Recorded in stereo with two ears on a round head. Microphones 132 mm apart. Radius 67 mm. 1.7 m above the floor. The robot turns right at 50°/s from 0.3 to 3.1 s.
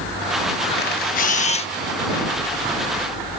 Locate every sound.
0.8 s a camera shutter: 90° left; by 1.7 s 140° left